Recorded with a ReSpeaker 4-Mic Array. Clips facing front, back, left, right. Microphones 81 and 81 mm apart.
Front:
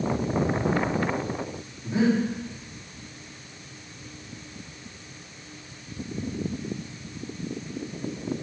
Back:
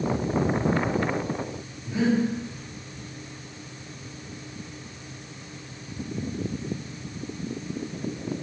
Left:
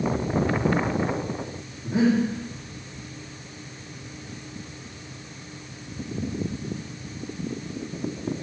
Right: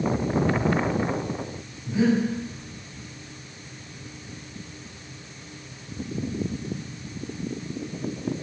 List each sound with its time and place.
1.8 s breathing: 65° left, 2 m